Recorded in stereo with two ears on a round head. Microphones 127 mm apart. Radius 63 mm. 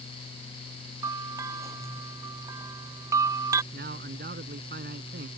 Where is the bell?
20° right (ahead or behind).